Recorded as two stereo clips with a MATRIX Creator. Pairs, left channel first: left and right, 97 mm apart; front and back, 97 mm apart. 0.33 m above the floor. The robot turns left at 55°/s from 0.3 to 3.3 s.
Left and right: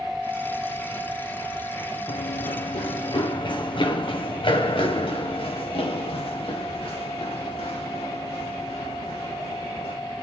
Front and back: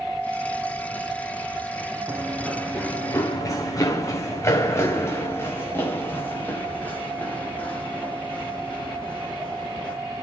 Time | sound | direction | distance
2.1 | running footsteps | 110° left | 2.0 m